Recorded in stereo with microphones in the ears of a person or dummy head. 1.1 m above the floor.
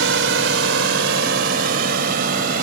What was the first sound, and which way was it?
A drone, 70° right (ahead or behind).